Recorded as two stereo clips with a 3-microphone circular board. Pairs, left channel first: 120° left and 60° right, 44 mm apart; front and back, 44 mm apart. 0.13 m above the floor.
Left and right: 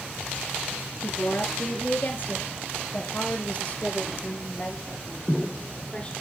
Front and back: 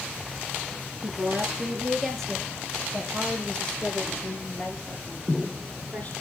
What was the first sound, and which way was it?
A woman speaking, 110° left.